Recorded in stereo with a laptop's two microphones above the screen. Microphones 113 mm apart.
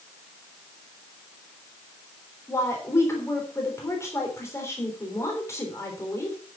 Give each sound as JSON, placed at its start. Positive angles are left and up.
{"t": 2.5, "sound": "a woman speaking", "side_deg": 25, "distance_m": 3.5}